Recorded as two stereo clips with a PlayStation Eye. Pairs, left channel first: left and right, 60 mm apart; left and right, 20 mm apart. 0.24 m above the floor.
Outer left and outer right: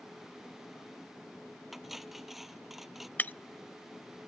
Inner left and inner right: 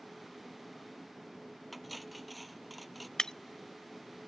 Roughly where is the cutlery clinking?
Centre.